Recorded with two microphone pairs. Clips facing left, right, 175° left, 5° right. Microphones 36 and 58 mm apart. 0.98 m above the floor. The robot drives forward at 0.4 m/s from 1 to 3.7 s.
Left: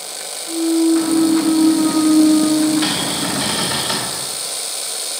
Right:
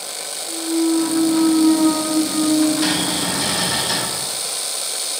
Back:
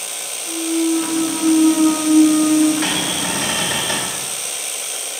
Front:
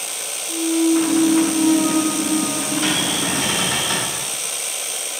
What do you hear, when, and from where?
0.5 s a clunk: 150° right, 2 m; by 2.7 s 155° right, 2.5 m
2.8 s a cupboard door: 160° left, 2 m; by 4.1 s 165° left, 2.5 m